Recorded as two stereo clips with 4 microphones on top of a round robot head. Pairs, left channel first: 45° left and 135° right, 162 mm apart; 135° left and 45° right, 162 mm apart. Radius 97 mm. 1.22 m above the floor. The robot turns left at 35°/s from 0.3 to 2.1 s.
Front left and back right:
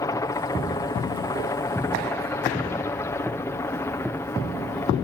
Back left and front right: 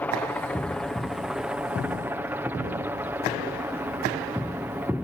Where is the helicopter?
70° left; by 5.0 s 5° left.